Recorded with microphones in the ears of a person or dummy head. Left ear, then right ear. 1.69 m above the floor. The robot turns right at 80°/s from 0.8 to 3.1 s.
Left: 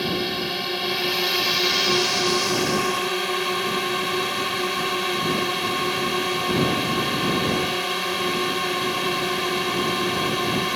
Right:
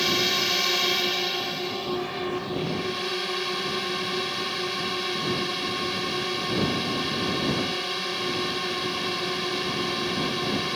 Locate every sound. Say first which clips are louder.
0.0 s a drone: right 2 dB; 25° right; by 10.8 s 155° left